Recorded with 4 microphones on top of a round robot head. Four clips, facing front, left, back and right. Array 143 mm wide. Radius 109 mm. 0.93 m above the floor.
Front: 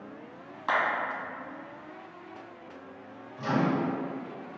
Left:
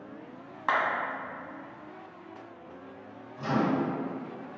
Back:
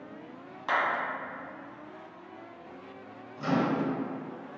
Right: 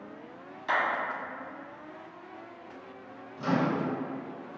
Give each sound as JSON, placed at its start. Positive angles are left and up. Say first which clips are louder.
{"t": 0.7, "sound": "a clap", "louder": "left 2 dB, front 1 dB", "azimuth_deg": 75, "distance_m": 1.3}
{"t": 3.4, "sound": "a microwave", "louder": "left 1 dB, even", "azimuth_deg": -140, "distance_m": 1.3}